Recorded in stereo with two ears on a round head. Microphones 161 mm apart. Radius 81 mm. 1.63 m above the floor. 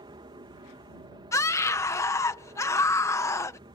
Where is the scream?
15° left (ahead or behind).